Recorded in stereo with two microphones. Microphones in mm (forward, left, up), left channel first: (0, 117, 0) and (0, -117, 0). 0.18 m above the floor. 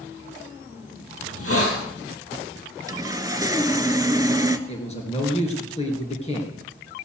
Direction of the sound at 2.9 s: 15° right (ahead or behind).